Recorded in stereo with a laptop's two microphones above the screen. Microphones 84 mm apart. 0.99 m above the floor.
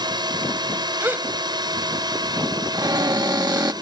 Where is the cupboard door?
50° right (ahead or behind).